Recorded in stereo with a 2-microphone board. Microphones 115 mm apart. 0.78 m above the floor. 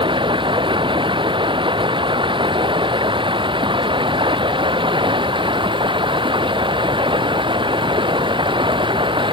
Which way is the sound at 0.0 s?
45° right (ahead or behind).